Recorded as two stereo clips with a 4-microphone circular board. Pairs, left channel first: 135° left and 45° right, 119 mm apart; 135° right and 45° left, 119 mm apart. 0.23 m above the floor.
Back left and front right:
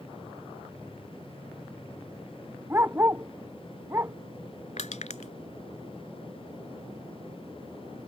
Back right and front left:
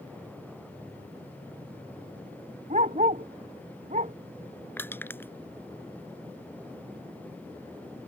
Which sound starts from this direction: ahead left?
A dog barking, at 2.7 s.